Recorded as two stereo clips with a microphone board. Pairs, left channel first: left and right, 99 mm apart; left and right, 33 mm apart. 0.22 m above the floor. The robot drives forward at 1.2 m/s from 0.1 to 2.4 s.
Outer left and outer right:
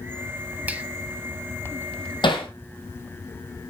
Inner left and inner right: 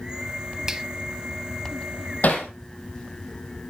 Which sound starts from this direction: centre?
A finger snap, at 0.7 s.